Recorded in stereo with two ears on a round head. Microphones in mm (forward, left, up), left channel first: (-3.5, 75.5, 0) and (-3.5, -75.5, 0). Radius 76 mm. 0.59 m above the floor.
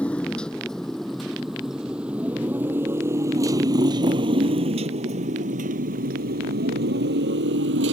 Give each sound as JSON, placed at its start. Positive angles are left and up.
{"t": 0.0, "sound": "a motorcycle", "side_deg": 10}